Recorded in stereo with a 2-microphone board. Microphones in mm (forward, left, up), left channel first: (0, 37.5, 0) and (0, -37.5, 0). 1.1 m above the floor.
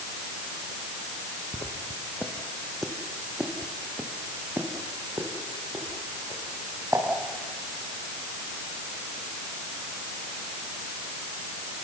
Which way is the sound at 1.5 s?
40° left (ahead or behind).